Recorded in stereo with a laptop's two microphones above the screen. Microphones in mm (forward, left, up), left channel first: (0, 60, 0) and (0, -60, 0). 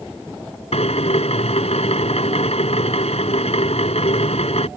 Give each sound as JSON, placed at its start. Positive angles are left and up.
{"t": 0.7, "sound": "a drill", "side_deg": 60}